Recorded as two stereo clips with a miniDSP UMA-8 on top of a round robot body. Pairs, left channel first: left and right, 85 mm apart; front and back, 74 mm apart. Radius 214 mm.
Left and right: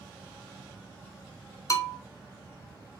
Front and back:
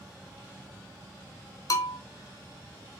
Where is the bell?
40° left, 0.9 m.